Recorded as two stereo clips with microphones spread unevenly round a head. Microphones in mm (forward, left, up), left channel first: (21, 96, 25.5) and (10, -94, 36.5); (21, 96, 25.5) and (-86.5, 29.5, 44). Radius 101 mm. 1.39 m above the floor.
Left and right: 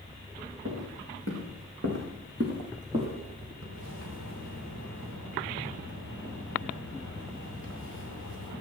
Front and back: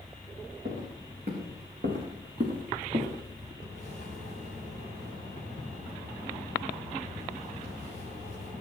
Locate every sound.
0.7 s footsteps: 115° right, 5 m; by 3.5 s 160° right, 3 m
3.6 s a splash: 115° right, 4.5 m